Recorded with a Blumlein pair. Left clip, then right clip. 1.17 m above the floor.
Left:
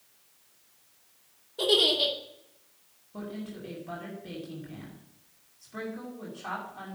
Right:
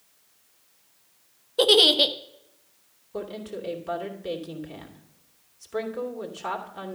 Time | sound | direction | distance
1.6 | a giggle | 60° right | 0.9 m
3.1 | a woman speaking | 65° right | 2.5 m